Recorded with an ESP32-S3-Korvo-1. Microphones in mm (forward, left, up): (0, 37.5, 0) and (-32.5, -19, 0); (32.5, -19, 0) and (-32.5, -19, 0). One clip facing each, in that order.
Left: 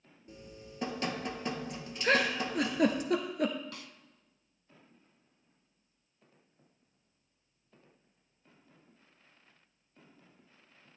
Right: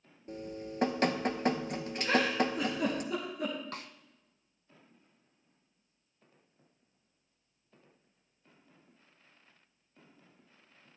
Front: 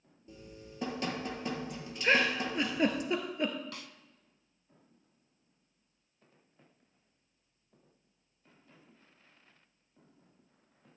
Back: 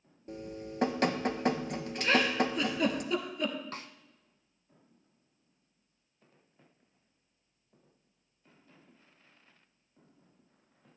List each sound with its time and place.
0.3 s dripping: 155° right, 0.9 m
2.0 s a giggle: 65° left, 1.3 m
3.7 s a snare drum: 140° right, 0.5 m